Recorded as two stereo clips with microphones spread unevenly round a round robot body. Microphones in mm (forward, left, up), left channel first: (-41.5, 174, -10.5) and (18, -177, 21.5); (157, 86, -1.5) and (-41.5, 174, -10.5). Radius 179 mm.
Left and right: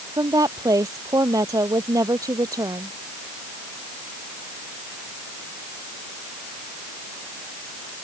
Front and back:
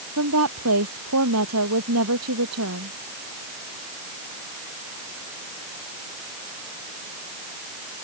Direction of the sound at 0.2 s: 160° right.